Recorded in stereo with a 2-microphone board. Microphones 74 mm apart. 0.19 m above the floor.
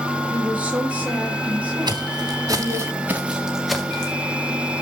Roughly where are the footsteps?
Right.